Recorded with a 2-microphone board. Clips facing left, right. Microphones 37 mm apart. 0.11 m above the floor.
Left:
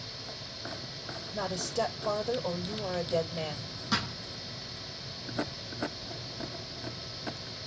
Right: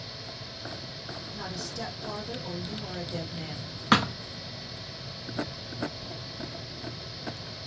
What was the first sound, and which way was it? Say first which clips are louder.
A woman speaking: left 7 dB; 60° left (ahead or behind).